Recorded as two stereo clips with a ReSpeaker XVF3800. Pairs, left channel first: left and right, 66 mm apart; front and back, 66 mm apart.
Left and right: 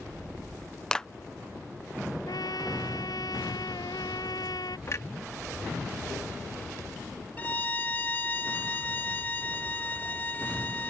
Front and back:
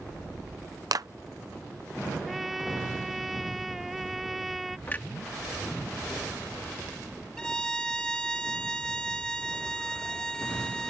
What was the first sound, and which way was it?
A clap, 165° left.